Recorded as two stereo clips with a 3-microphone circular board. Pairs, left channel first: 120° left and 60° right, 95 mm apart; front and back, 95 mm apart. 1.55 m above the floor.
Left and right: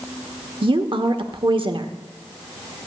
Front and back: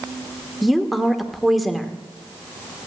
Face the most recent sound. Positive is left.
turn(degrees=-90)